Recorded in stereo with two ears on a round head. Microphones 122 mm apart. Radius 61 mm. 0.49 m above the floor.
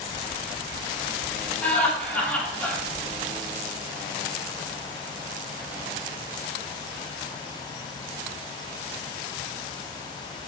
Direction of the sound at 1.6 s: 10° left (ahead or behind).